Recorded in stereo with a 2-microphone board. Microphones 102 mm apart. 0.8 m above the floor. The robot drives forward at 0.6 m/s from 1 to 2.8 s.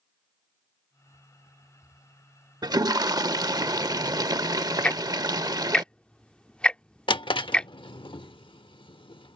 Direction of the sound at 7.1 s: 55° left (ahead or behind).